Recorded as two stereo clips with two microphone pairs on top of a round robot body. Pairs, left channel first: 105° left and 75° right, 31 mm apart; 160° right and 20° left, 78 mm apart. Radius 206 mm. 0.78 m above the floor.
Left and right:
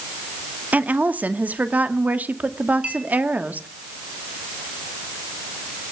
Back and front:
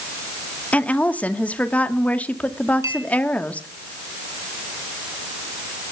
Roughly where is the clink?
Ahead right.